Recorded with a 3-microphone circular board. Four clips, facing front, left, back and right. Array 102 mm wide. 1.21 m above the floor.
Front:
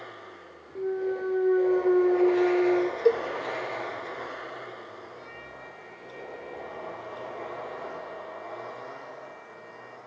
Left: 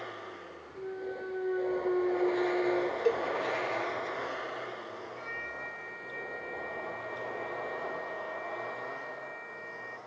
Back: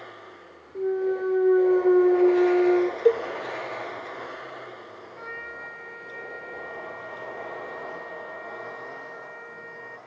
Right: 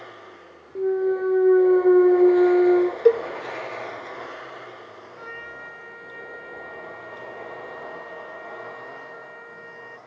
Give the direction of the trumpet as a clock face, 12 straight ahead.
5 o'clock.